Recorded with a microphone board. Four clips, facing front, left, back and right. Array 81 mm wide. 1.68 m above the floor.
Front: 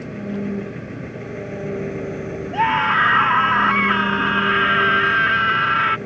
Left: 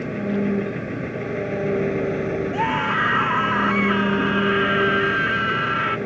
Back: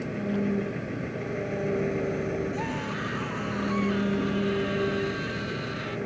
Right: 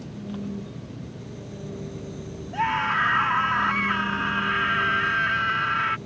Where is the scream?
5° left.